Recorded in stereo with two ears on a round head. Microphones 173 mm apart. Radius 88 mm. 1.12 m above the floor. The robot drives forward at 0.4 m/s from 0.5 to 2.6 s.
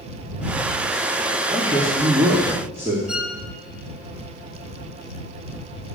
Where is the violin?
5° right (ahead or behind), 1.2 m.